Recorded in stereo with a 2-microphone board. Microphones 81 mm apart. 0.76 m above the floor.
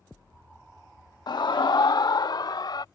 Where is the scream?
60° left (ahead or behind).